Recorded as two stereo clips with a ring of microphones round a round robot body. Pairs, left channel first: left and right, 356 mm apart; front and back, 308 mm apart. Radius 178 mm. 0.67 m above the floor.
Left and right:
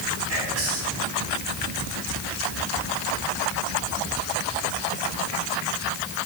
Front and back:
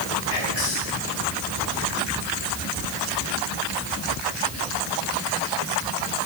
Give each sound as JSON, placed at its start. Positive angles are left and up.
{"t": 0.3, "sound": "whispering", "azimuth_deg": -35, "distance_m": 4.5}